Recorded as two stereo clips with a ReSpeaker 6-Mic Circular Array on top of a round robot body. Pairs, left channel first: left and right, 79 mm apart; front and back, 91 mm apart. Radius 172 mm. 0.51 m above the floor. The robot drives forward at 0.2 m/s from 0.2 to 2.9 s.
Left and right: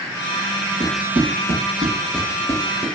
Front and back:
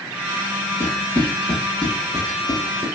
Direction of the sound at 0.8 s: 55° right.